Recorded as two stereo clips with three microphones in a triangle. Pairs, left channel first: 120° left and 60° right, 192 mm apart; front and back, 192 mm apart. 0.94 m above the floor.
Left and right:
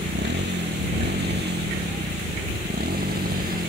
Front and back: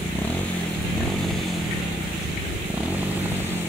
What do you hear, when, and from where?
0.0 s a motorcycle: 80° right; by 3.7 s 100° right